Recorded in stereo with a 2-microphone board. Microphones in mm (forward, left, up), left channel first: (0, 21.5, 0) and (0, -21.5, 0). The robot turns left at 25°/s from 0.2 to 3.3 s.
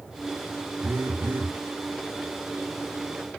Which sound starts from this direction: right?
A phone buzzing, at 0.8 s.